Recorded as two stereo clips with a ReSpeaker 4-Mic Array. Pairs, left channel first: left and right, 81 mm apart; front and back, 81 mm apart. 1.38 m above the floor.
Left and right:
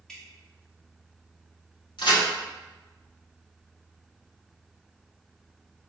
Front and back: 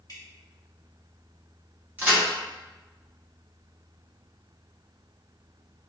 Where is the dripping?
5° left, 1.0 m.